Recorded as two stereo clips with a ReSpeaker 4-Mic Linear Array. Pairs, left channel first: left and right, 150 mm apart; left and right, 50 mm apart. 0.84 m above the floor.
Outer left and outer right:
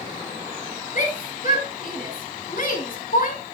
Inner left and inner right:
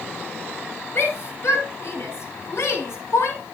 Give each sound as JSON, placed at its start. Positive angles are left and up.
{"t": 0.9, "sound": "a shout", "side_deg": 60, "distance_m": 4.5}